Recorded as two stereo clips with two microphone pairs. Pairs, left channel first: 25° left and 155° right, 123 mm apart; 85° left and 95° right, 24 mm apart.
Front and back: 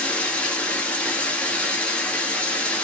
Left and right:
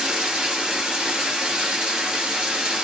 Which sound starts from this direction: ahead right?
Running water, at 0.0 s.